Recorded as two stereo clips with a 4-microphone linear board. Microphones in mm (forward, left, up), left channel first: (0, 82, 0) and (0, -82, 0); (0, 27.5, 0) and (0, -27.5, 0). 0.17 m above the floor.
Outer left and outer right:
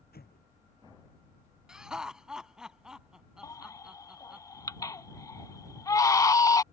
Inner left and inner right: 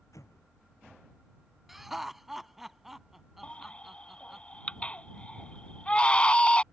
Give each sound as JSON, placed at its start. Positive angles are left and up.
{"t": 0.1, "sound": "an explosion", "side_deg": 80}
{"t": 1.7, "sound": "laughter", "side_deg": -5}
{"t": 3.4, "sound": "a baby crying", "side_deg": 20}